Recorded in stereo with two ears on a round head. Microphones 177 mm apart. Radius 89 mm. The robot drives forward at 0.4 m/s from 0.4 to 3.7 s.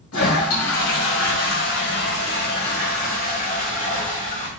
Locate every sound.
0.1 s a toilet flushing: 85° left, 1.2 m; by 4.5 s 45° left (ahead or behind), 1.7 m